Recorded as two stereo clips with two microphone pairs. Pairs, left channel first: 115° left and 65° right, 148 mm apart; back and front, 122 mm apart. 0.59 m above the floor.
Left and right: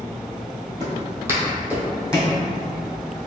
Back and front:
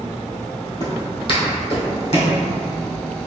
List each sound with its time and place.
0.8 s footsteps: 125° right, 1.1 m; by 2.4 s 150° right, 2 m